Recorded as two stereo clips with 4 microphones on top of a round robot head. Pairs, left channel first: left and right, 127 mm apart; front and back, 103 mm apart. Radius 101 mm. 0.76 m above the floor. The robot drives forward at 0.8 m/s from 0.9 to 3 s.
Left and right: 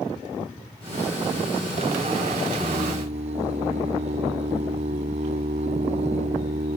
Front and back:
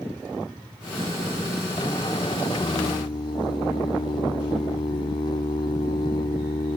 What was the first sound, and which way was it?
Singing, 45° right.